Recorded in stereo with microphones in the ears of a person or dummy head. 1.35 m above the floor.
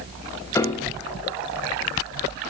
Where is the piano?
15° left (ahead or behind), 0.9 m.